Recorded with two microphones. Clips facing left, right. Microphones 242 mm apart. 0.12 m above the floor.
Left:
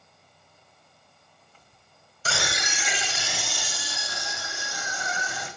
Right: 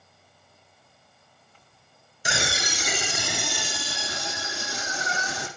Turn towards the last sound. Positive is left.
turn(degrees=-80)